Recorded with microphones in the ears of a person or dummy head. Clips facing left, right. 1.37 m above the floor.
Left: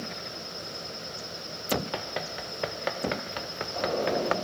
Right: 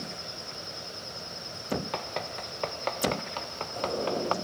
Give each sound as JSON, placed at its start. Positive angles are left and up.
{"t": 1.9, "sound": "running footsteps", "side_deg": 5}